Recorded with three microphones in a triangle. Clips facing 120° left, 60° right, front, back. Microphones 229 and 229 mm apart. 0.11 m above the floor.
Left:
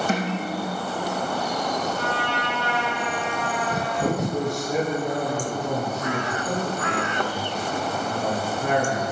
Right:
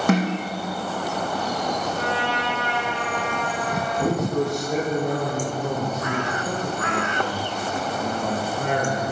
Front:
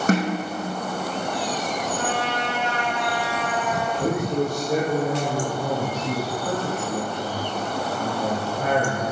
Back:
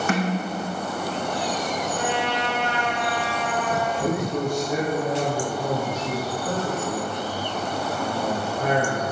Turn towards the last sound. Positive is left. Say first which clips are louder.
# right 2 dB, front 4 dB
turn(degrees=-45)